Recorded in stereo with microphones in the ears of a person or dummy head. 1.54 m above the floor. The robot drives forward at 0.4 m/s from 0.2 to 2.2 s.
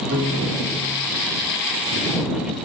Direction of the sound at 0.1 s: 65° right (ahead or behind).